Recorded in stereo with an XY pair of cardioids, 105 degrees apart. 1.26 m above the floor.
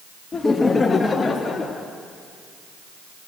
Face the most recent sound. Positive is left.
turn(degrees=25)